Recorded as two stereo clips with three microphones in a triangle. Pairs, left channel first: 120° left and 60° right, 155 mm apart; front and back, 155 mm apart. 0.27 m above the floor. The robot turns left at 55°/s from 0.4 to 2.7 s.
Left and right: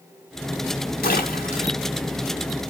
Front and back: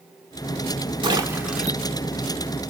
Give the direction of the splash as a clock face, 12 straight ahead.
8 o'clock.